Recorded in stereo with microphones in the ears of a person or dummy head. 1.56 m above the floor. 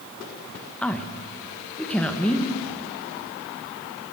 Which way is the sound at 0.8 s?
Centre (ahead or behind).